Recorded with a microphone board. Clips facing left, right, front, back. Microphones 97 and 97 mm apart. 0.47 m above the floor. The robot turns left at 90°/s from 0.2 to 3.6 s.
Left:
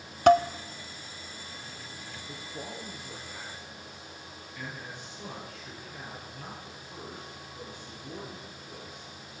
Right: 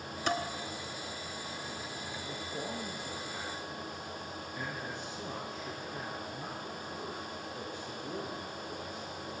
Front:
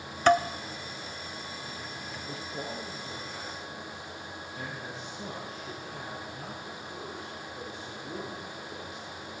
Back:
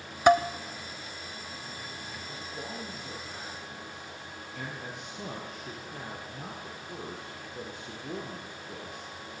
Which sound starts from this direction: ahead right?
A man speaking, at 2.3 s.